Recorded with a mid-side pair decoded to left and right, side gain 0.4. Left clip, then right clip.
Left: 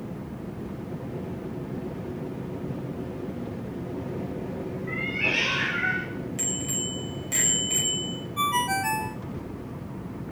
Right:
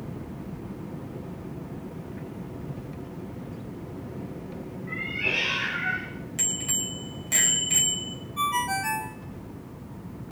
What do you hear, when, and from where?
4.9 s a cat meowing: 45° left, 7 m; by 6.1 s 50° left, 6 m
6.4 s a bicycle bell: 30° right, 6 m
8.4 s a ringtone: 15° left, 1.9 m